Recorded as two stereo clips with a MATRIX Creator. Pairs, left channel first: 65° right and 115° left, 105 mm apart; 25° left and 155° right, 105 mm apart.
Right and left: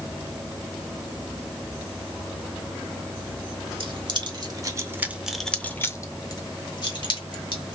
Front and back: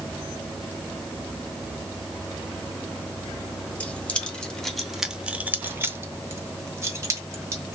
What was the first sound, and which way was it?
Keys jangling, 95° left.